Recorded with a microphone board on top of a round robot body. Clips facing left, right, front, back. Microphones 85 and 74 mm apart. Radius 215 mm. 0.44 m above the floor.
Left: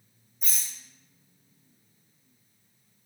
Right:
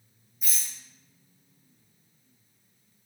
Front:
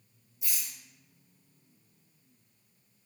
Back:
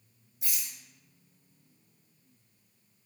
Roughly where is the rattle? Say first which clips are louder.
Even, even; behind.